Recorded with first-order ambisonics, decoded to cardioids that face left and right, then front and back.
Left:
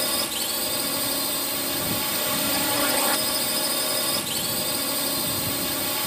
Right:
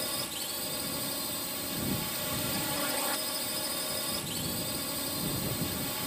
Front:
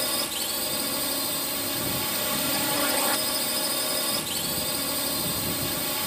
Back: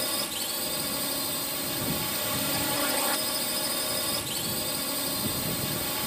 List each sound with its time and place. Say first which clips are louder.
0.0 s a drone: left 9 dB, front 2 dB; 70° left